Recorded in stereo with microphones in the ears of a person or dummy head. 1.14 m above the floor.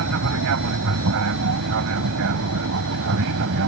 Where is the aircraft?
70° right (ahead or behind); by 3.7 s 65° right (ahead or behind).